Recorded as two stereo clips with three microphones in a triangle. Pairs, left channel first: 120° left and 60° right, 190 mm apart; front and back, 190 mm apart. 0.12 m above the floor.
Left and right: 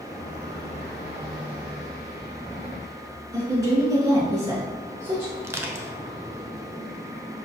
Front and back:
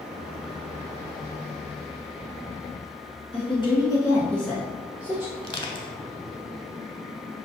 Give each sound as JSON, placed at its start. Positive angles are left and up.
{"t": 3.3, "sound": "a woman speaking", "azimuth_deg": -5, "distance_m": 1.4}
{"t": 5.4, "sound": "crushing", "azimuth_deg": 0, "distance_m": 0.5}